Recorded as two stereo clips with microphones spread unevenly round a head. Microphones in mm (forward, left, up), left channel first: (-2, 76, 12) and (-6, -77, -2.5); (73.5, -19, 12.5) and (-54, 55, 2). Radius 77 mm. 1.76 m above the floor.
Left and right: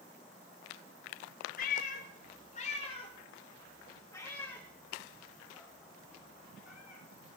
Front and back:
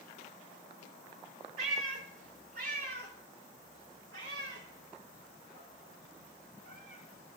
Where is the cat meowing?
110° left, 4 m; by 7.4 s 170° right, 7.5 m.